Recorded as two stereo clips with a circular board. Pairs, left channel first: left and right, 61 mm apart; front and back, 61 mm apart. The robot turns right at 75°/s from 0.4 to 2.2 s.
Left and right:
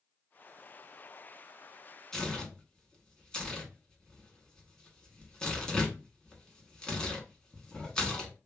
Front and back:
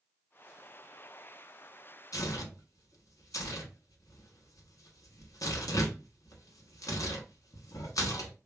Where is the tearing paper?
10° left, 0.8 m; by 8.3 s 15° left, 0.8 m.